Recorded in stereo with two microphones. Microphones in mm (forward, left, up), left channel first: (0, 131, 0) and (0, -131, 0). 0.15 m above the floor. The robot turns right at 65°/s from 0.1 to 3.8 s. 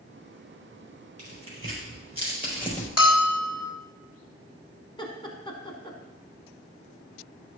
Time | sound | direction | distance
1.2 | tearing paper | 70° right (ahead or behind) | 4.5 m
3.0 | a bell | 110° left | 2 m
5.0 | laughter | 20° left (ahead or behind) | 1.3 m